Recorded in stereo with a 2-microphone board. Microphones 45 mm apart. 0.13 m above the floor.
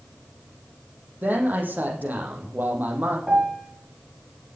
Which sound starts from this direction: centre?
A piano, at 3.3 s.